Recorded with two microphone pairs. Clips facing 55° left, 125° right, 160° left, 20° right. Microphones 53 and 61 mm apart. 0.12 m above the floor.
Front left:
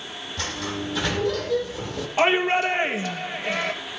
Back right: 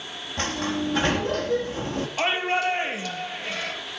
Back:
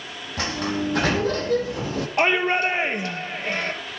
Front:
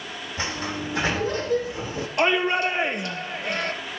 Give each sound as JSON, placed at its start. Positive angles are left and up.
{"t": 0.4, "sound": "a sliding door", "azimuth_deg": 180, "distance_m": 4.5}
{"t": 2.2, "sound": "a shout", "azimuth_deg": 110, "distance_m": 2.5}